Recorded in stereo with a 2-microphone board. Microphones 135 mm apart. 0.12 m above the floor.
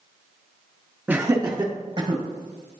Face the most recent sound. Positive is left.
turn(degrees=-45)  # may be behind; listen again after turning